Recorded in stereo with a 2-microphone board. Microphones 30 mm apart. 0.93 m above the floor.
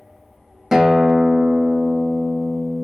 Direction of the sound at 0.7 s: 20° right (ahead or behind).